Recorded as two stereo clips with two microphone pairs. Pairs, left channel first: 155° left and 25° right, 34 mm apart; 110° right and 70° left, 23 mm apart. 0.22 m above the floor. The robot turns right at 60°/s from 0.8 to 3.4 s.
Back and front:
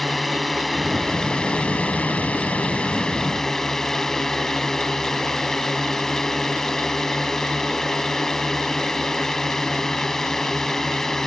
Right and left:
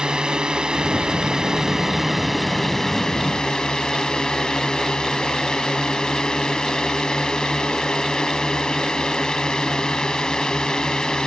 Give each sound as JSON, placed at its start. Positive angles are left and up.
{"t": 0.0, "sound": "a drone", "azimuth_deg": 65}